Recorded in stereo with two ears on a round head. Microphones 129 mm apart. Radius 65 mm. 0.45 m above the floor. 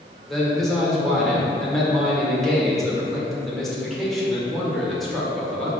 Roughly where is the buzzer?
I don't hear a buzzer.